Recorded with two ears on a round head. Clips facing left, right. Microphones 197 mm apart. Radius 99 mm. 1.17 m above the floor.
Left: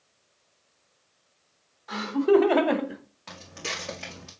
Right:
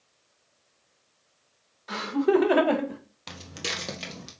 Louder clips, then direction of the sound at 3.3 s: Right 1 dB; 50° right (ahead or behind).